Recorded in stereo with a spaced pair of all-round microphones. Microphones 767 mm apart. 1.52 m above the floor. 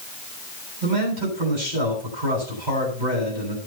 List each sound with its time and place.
0.8 s a man speaking: 90° right, 10 m